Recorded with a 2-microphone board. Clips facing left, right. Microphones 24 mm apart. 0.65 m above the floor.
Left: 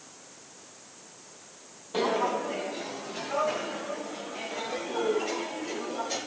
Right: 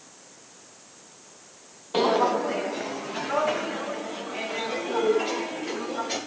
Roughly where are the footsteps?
Right.